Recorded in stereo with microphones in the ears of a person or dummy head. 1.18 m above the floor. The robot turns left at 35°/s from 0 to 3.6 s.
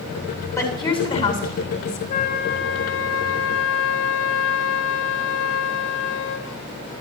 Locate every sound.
0.6 s a woman speaking: 170° left, 8.5 m; by 2.0 s 120° left, 8.5 m
2.1 s a flute: 125° left, 4.5 m; by 6.5 s 75° left, 4.5 m